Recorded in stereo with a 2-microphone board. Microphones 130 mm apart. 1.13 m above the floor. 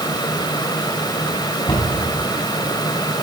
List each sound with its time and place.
1.7 s a cupboard door: 35° left (ahead or behind), 3.5 m